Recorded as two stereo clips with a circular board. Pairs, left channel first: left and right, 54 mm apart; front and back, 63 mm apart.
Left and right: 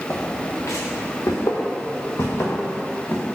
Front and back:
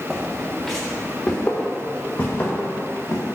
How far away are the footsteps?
About 0.9 m.